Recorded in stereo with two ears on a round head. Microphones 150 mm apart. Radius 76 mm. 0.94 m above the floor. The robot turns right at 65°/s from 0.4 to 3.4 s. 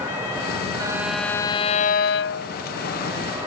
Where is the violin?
25° right; by 2.6 s 95° left.